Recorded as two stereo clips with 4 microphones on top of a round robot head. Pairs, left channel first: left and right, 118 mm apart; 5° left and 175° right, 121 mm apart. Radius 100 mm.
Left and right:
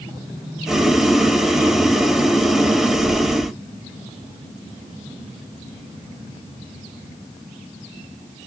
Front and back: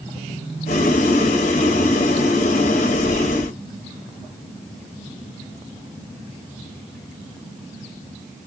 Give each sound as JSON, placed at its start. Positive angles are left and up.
{"t": 0.7, "sound": "boiling", "azimuth_deg": -5, "distance_m": 0.5}